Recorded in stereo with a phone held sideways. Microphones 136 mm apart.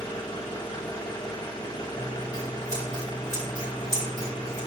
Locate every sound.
0.0 s an engine running: 30° left (ahead or behind), 2 m
1.9 s scissors: 30° right (ahead or behind), 5.5 m